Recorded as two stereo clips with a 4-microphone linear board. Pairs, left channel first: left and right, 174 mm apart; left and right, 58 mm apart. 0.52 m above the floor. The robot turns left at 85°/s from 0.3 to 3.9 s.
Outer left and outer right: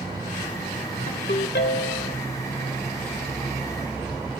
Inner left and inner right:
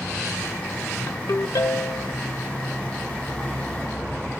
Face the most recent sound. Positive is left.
turn(degrees=-110)